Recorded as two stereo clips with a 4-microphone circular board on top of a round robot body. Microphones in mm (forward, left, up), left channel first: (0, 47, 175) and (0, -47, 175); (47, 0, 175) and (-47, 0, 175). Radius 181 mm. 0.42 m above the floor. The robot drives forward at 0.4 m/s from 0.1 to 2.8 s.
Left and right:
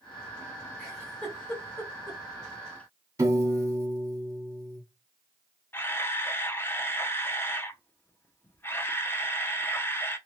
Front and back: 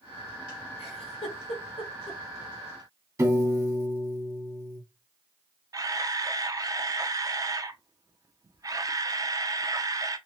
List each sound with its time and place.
0.8 s a giggle: 15° left, 1.4 m; by 2.2 s 25° left, 0.9 m
3.2 s a piano: 135° right, 1.4 m
5.7 s a camera shutter: 145° left, 0.7 m